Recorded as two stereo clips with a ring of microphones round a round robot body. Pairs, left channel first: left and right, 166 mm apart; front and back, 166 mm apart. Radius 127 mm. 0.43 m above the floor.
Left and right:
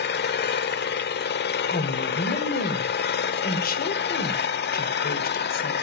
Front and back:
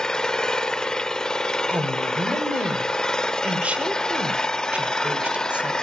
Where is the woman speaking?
100° left, 1.6 m.